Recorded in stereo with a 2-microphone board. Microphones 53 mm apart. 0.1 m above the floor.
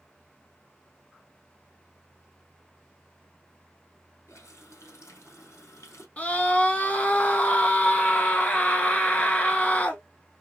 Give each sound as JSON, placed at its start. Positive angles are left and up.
{"t": 4.3, "sound": "a running tap", "side_deg": 60, "distance_m": 3.0}
{"t": 6.2, "sound": "a scream", "side_deg": 25, "distance_m": 1.2}